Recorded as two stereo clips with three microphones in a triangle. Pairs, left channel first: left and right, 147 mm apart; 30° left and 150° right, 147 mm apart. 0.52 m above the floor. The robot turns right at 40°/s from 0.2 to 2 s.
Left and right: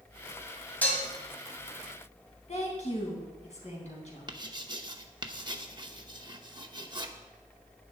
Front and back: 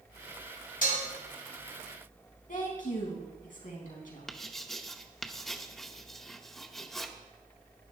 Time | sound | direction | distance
0.8 | dishes clattering | 10° left | 1.9 m
2.5 | a woman speaking | 50° left | 3.5 m
4.3 | writing | 55° right | 0.8 m